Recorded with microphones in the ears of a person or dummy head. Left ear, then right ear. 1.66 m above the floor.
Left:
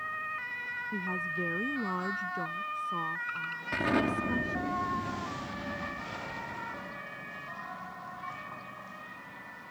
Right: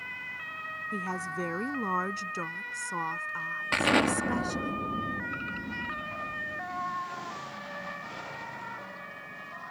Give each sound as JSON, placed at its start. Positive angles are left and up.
{"t": 0.9, "sound": "a woman speaking", "side_deg": -80}
{"t": 3.7, "sound": "an explosion", "side_deg": -40}